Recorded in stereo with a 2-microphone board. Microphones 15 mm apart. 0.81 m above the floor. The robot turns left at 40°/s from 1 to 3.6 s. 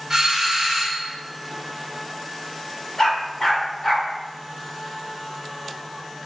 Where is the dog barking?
50° left (ahead or behind), 0.9 m; by 4.1 s 25° left (ahead or behind), 0.9 m.